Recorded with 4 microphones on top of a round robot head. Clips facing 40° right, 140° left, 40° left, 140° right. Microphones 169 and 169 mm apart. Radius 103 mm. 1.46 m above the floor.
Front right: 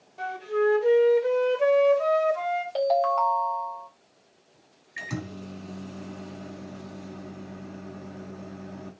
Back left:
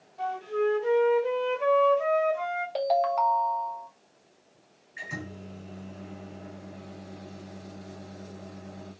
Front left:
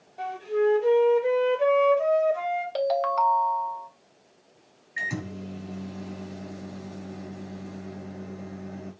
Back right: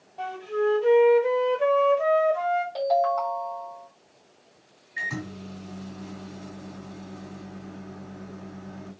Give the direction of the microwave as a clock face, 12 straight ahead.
1 o'clock.